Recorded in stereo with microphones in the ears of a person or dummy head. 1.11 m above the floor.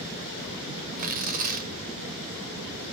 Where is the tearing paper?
50° right (ahead or behind), 1.7 m.